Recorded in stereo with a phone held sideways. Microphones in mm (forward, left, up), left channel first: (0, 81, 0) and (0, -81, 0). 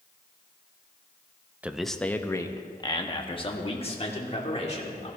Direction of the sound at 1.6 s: 10° right (ahead or behind).